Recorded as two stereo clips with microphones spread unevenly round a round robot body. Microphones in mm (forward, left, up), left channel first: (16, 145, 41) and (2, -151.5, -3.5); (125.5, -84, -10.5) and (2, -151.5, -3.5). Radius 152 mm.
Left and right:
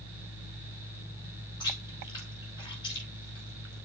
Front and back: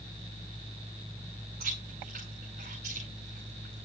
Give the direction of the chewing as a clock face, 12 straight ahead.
7 o'clock.